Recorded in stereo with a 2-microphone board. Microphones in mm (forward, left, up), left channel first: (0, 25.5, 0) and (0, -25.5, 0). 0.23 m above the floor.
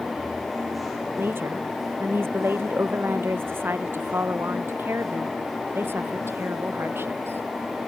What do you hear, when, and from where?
1.2 s a woman speaking: 50° right (ahead or behind)